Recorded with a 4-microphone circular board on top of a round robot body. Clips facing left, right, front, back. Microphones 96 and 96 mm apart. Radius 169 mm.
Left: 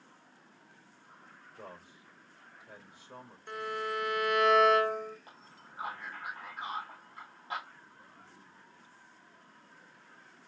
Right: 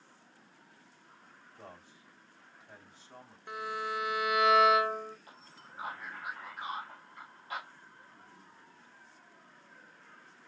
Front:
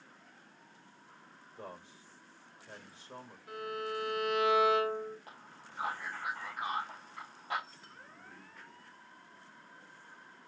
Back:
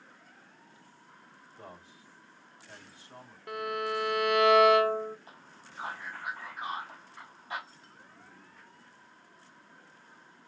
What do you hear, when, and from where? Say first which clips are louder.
1.6 s a man speaking: left 3 dB, front 2 dB; 60° left, 3 m
3.5 s a violin: left 1 dB, back 6 dB; 175° right, 0.7 m
5.3 s a man speaking: even, even; 35° left, 4 m